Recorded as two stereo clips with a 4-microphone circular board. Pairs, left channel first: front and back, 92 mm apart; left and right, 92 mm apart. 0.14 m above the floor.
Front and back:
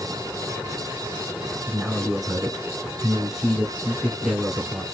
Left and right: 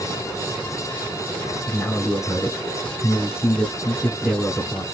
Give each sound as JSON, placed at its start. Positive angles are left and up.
{"t": 1.7, "sound": "a man speaking", "azimuth_deg": 95, "distance_m": 1.5}